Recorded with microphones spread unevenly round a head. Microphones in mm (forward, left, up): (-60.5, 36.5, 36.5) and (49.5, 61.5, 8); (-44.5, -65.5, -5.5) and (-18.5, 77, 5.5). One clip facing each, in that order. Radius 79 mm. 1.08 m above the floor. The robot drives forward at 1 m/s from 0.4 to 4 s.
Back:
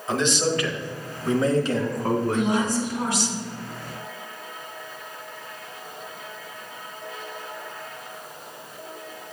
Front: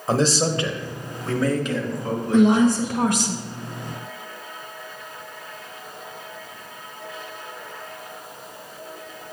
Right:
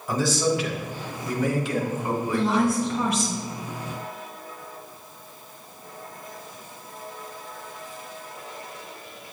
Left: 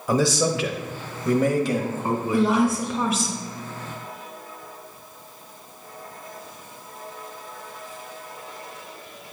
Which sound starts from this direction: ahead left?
A man speaking, at 0.1 s.